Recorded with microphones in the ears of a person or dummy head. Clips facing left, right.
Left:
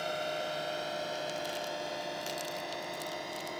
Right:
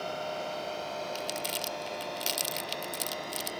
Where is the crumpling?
30° right (ahead or behind).